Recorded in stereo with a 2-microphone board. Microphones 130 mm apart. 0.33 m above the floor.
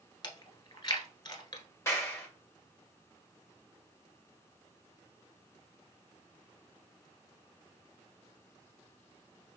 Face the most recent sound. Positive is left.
turn(degrees=20)  # may be behind; listen again after turning